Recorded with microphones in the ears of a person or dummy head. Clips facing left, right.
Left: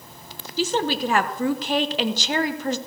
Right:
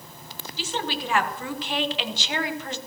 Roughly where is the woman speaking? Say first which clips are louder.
Left 8 dB; left.